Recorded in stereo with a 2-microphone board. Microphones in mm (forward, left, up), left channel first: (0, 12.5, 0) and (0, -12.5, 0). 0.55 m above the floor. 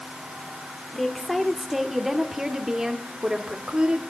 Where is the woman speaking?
5° left (ahead or behind), 1.8 m; by 4.0 s 45° right (ahead or behind), 1.8 m.